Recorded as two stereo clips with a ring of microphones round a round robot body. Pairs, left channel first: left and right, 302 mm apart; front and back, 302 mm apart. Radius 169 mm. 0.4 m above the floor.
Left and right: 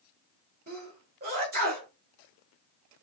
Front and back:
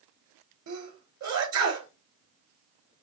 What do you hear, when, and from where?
0.7 s a sneeze: 150° right, 2.5 m